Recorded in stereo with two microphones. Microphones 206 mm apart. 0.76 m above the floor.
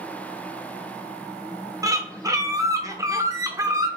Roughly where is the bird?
Centre.